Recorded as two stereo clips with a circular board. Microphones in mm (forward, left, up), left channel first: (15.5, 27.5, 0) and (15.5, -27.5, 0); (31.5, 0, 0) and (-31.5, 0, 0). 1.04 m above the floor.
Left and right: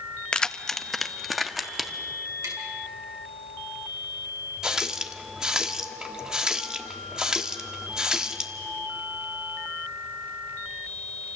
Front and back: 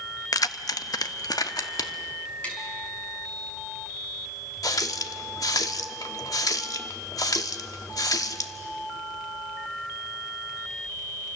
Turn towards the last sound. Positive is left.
turn(degrees=-10)